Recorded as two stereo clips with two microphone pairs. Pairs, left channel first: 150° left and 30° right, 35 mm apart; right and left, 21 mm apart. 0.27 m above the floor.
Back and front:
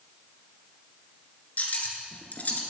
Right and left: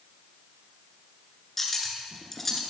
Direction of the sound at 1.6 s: 170° right.